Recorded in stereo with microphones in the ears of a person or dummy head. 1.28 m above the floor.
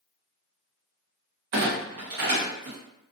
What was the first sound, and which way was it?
A clunk, 65° right (ahead or behind).